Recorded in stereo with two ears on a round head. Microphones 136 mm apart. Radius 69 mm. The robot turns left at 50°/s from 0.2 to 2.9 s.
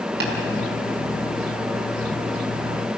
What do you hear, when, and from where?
0.2 s tapping: 70° right (ahead or behind), 5.5 m; by 0.3 s 75° right (ahead or behind), 5.5 m